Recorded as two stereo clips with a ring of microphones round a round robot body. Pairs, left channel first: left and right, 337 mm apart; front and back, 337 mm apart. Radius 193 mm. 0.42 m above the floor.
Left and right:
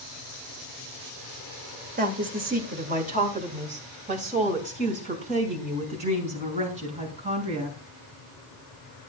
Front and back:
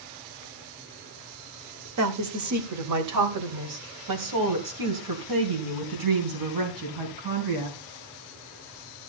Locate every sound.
2.0 s a woman speaking: 150° right, 2 m; by 7.8 s 165° right, 5.5 m